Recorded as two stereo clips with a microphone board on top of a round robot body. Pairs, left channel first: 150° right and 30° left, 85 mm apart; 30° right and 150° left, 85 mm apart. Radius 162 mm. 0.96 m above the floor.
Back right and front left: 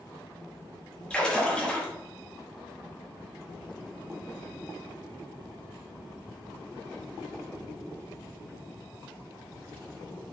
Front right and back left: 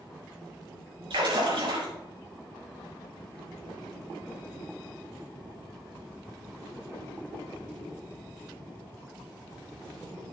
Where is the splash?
130° left, 5 m.